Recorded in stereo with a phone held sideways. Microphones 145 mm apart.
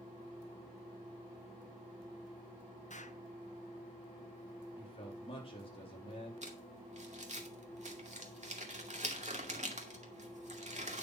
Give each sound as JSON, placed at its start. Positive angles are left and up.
{"t": 2.9, "sound": "an explosion", "side_deg": 55, "distance_m": 0.9}
{"t": 4.8, "sound": "a man speaking", "side_deg": 40, "distance_m": 4.0}
{"t": 6.4, "sound": "crumpling", "side_deg": -55, "distance_m": 2.0}